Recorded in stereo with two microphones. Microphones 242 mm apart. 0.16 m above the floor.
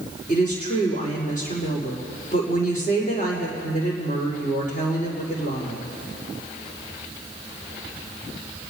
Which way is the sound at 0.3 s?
35° left (ahead or behind).